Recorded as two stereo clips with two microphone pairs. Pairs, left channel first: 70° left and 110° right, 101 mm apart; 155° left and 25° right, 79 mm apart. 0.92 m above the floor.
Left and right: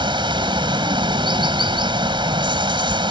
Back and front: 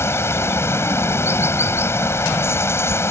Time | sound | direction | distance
0.0 | running water | 150° right | ?